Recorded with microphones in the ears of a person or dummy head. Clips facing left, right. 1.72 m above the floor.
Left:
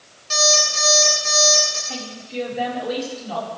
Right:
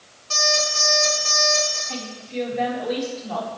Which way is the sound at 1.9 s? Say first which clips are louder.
Even; 5° left (ahead or behind).